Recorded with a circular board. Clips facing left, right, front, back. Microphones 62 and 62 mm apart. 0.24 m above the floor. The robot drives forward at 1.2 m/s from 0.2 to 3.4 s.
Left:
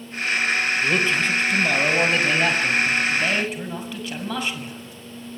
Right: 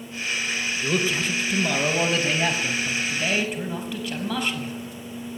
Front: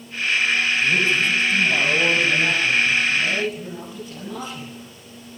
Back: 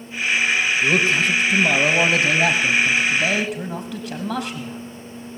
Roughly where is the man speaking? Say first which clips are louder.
Even, back 3 dB; behind.